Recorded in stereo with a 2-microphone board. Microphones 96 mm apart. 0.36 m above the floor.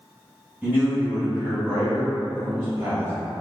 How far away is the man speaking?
About 1.9 m.